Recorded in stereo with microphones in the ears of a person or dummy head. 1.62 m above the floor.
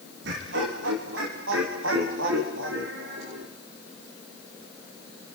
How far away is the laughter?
About 3 m.